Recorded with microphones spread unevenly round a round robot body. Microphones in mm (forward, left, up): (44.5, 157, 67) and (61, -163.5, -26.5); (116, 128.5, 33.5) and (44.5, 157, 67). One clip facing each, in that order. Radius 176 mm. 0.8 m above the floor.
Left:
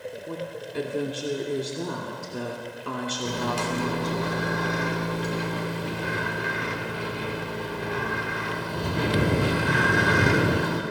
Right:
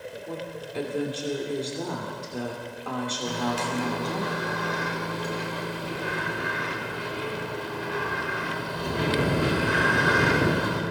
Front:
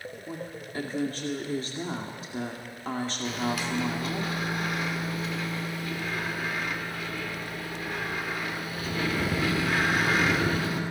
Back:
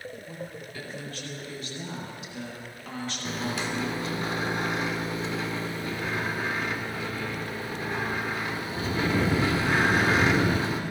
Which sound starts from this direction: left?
A microwave, at 3.2 s.